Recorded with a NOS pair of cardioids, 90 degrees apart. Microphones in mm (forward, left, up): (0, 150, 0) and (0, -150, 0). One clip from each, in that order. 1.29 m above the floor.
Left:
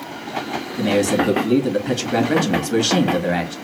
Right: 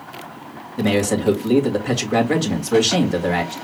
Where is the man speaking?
10° right, 2.5 m.